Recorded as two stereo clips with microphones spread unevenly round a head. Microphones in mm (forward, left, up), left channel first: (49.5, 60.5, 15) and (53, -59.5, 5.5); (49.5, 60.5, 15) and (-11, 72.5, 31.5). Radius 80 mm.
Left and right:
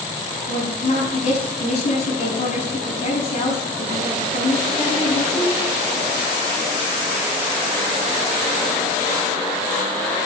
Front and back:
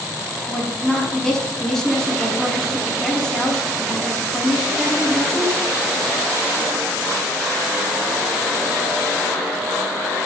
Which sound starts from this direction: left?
A woman speaking, at 0.5 s.